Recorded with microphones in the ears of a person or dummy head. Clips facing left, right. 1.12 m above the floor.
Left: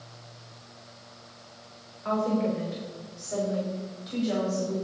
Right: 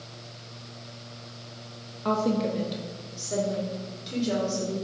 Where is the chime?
No chime in this recording.